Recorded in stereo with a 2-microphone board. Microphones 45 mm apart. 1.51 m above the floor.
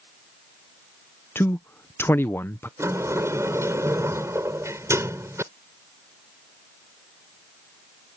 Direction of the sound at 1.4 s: 55° left (ahead or behind).